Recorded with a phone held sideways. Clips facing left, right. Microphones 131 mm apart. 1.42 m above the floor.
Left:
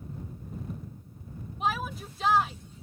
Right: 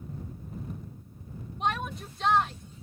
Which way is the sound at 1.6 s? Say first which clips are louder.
Even; 5° left (ahead or behind).